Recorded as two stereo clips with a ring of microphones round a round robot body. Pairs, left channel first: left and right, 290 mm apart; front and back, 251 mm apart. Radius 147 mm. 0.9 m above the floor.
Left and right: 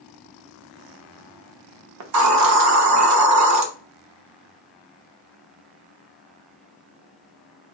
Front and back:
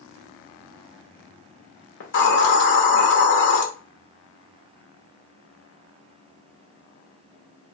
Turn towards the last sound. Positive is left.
turn(degrees=-55)